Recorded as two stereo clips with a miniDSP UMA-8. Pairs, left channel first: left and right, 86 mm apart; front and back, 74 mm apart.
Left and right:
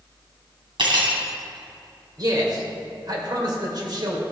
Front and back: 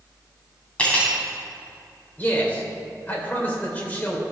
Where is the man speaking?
65° right, 2.5 m.